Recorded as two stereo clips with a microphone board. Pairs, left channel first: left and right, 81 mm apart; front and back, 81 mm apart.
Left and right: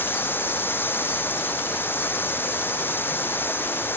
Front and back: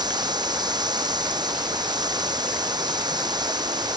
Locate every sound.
0.0 s running water: 155° left